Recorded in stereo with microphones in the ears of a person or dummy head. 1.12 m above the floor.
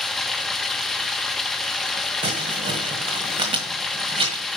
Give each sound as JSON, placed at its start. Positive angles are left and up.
{"t": 0.0, "sound": "running water", "side_deg": 5, "distance_m": 0.8}
{"t": 2.2, "sound": "crumpling", "side_deg": -30, "distance_m": 1.5}